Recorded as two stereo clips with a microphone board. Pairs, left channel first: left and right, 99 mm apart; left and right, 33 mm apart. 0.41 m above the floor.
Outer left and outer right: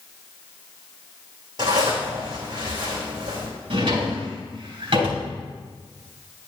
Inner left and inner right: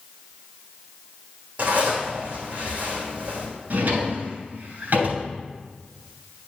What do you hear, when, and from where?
1.6 s a zipper: 45° right (ahead or behind), 3.5 m
3.7 s a drawer: 55° right (ahead or behind), 3 m